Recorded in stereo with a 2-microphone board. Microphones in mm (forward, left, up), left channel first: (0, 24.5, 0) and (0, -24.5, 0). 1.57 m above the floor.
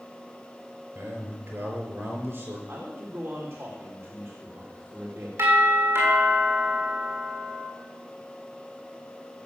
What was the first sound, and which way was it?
A man speaking, 55° right (ahead or behind).